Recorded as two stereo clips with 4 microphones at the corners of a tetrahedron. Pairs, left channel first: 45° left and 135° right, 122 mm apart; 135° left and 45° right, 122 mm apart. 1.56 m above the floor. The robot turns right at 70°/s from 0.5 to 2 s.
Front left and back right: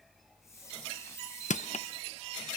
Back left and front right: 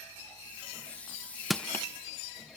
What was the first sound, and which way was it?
Crushing, 45° left.